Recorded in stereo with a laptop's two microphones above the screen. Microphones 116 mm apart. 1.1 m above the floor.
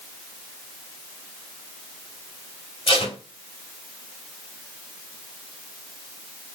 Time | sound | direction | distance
2.9 | tape being pulled | 50° left (ahead or behind) | 1.7 m